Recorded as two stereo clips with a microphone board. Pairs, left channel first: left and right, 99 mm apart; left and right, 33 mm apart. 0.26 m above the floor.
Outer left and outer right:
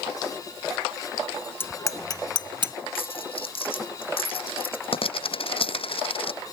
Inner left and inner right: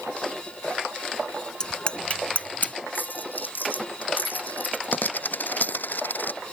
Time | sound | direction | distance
1.6 | a bicycle bell | 25° left (ahead or behind) | ?
3.0 | a dropped coin | 65° left (ahead or behind) | ?